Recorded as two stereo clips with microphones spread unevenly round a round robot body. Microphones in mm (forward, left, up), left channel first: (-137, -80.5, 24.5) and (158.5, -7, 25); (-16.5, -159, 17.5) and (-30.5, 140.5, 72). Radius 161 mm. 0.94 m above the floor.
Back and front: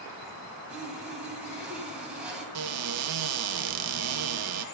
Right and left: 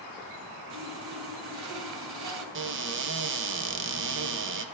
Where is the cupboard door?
40° left, 1.0 m.